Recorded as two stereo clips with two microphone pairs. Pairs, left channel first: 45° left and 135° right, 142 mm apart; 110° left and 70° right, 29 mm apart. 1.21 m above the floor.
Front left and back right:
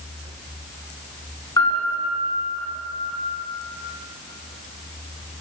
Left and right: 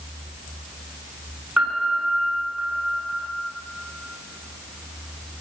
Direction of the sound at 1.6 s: 20° right.